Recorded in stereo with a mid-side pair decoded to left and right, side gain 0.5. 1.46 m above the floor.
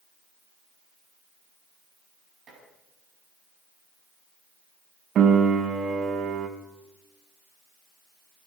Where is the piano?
55° right, 1.5 m.